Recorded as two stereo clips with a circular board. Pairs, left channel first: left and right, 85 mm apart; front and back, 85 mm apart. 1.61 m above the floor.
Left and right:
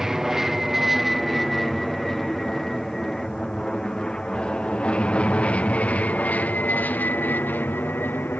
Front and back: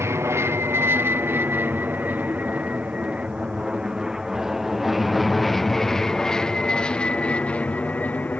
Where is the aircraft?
170° right; by 8.4 s 50° left.